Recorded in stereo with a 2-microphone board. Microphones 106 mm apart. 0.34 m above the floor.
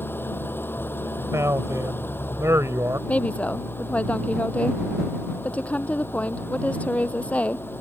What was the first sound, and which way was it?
An engine running, 20° left (ahead or behind).